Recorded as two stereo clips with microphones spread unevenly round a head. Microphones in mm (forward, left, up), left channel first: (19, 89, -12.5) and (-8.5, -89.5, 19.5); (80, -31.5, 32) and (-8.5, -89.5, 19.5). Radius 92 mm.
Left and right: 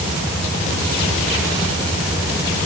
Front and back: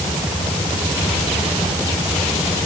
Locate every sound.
Only background noise.